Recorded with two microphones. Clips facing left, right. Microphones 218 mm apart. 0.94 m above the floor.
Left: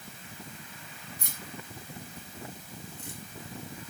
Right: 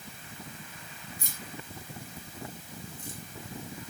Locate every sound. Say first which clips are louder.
1.2 s keys jangling: even; 65° left (ahead or behind), 6.5 m; by 3.2 s 70° left (ahead or behind), 5.5 m